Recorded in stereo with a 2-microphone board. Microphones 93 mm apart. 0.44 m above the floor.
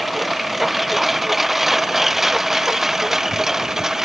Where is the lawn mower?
Centre (ahead or behind); by 4.1 s 5° right (ahead or behind).